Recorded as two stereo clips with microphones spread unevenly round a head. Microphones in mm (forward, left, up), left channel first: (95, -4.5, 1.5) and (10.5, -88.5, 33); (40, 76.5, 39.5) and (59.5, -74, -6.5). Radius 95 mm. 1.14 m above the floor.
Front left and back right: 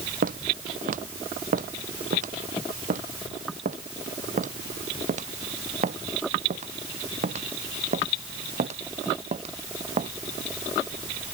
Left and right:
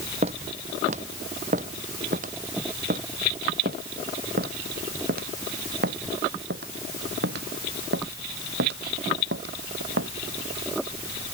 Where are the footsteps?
140° right; by 10.1 s 105° right.